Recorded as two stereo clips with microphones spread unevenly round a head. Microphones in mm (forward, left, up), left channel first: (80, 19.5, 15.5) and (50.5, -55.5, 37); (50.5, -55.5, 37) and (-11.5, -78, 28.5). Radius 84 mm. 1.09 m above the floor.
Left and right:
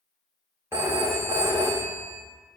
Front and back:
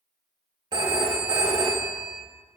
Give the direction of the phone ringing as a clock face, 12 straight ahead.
6 o'clock.